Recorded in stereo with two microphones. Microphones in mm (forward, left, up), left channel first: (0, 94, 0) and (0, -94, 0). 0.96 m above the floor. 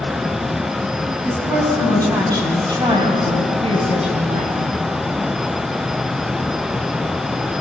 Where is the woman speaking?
15° right (ahead or behind), 6.5 m; by 4.7 s 40° right (ahead or behind), 4.5 m.